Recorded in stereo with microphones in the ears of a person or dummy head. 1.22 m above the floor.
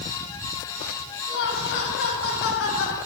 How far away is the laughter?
About 6.5 m.